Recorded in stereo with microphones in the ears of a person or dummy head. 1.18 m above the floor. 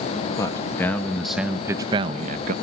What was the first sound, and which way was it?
A man speaking, 25° left (ahead or behind).